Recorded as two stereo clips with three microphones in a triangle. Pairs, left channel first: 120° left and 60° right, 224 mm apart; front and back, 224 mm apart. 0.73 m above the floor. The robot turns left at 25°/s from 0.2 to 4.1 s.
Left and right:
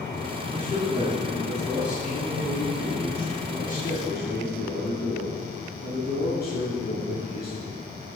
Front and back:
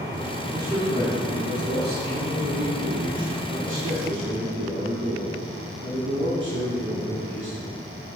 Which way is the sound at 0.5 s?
110° right.